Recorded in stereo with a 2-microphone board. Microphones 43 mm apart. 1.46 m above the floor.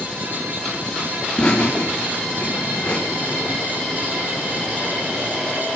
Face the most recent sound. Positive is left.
turn(degrees=20)  # may be behind; listen again after turning